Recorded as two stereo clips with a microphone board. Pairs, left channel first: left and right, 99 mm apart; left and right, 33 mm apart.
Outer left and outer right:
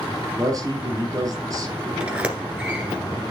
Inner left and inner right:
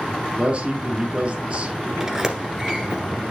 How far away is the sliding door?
About 1.3 m.